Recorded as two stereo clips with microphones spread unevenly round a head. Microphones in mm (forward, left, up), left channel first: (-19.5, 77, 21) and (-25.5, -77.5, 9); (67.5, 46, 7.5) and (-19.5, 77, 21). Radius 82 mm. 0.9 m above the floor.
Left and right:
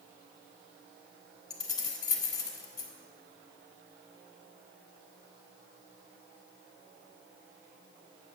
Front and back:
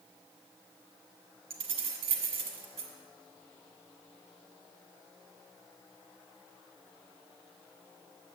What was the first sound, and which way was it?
Keys jangling, 155° left.